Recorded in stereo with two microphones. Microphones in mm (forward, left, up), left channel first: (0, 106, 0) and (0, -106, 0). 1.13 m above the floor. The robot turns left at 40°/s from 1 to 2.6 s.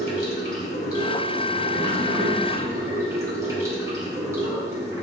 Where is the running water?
50° left, 2.5 m; by 5.0 s 15° right, 2.5 m.